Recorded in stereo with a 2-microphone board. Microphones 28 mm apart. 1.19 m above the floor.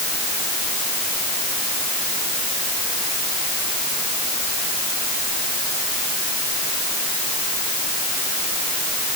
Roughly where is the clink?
I don't hear a clink.